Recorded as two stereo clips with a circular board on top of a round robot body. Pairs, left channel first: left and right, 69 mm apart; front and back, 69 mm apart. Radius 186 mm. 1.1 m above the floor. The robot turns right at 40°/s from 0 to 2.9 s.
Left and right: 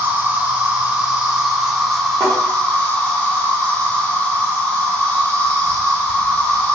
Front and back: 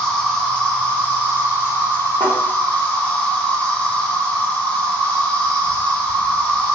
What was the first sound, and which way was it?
An insect, 75° right.